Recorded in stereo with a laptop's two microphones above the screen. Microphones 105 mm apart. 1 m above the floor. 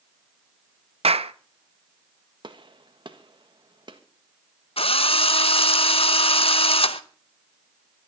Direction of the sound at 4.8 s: 65° left (ahead or behind).